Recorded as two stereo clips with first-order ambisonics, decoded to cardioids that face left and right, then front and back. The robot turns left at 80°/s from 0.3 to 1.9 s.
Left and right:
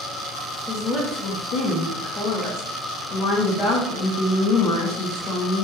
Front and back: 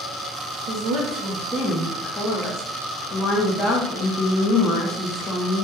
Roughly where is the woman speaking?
Behind.